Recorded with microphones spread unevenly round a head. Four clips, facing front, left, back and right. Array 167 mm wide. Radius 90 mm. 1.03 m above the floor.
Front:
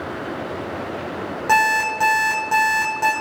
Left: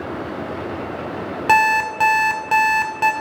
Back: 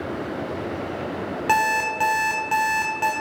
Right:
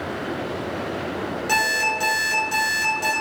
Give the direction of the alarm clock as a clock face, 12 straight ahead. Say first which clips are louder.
Left 9 dB, front 3 dB; 10 o'clock.